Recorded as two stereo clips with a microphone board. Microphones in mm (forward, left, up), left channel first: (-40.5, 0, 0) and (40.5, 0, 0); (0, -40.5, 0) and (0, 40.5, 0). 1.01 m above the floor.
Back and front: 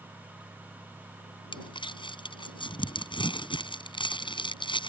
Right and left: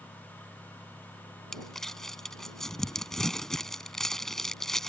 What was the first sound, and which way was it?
Crumpling, 175° right.